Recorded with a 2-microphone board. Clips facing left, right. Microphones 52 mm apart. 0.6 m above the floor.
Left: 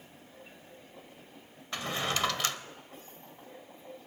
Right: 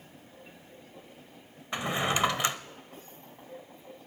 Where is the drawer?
20° right (ahead or behind), 0.5 m.